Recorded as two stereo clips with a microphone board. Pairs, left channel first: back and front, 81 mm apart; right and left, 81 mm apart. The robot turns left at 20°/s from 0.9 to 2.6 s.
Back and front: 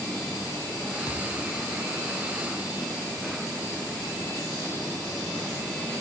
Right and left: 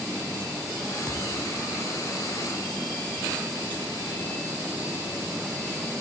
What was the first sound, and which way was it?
A thud, 145° left.